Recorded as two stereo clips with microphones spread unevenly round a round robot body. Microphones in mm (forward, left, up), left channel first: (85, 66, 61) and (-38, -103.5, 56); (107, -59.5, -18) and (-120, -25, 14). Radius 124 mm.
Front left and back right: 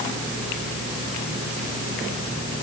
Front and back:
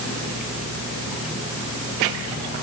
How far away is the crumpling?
I don't hear crumpling.